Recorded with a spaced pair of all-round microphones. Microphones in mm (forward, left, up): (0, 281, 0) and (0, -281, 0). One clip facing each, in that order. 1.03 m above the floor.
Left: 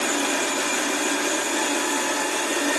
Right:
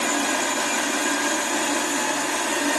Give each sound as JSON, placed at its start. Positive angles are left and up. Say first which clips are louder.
{"t": 0.0, "sound": "a machine running", "louder": "even", "side_deg": -20, "distance_m": 2.0}